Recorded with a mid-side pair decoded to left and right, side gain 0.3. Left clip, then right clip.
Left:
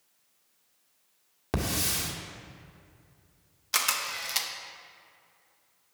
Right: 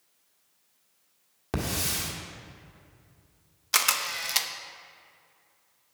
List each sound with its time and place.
1.5 s a hiss: 20° left, 1.6 m
3.7 s a camera shutter: 35° right, 0.7 m